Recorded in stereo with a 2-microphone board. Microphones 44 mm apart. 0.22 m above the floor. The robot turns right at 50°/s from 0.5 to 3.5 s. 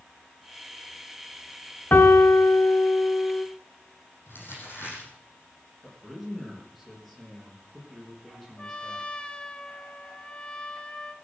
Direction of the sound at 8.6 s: 20° left (ahead or behind).